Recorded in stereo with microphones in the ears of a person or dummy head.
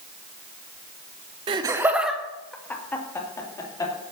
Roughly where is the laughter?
Right.